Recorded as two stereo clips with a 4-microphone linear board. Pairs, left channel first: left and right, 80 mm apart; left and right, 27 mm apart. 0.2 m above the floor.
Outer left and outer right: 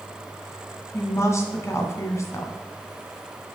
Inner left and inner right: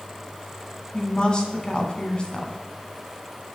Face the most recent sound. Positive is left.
turn(degrees=35)  # may be behind; listen again after turning